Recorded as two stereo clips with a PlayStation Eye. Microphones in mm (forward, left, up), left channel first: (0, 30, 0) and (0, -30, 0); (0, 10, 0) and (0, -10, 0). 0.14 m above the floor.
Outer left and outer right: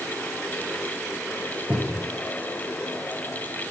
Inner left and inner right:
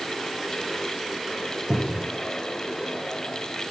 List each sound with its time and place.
1.7 s a cupboard door: 25° right (ahead or behind), 2 m